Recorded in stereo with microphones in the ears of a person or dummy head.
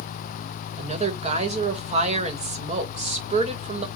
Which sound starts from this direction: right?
A woman speaking, at 0.8 s.